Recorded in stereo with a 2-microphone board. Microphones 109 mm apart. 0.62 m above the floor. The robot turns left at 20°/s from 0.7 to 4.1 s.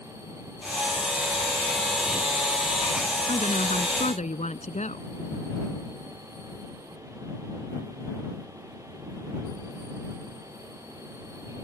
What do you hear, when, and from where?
3.3 s a woman speaking: 70° left (ahead or behind); by 5.1 s 80° left